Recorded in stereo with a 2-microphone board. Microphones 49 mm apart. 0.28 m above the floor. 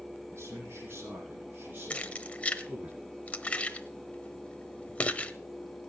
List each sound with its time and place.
0.3 s a man speaking: 60° right (ahead or behind), 7.5 m; by 2.9 s 35° right (ahead or behind), 4.5 m
1.9 s keys jangling: 25° left (ahead or behind), 0.9 m